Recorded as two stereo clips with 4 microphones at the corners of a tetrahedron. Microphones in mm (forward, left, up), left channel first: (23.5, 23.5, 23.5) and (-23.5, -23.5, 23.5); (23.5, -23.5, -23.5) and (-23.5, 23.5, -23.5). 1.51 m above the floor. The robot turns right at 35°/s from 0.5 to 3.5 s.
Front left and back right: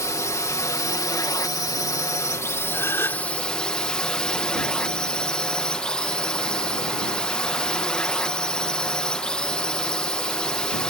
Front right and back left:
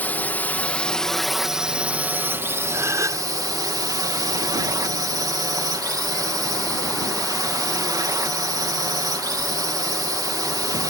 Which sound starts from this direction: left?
A gasp, at 2.7 s.